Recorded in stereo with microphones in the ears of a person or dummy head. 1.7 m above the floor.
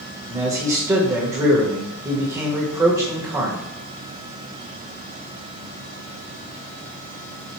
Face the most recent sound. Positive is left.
turn(degrees=-20)  # may be behind; listen again after turning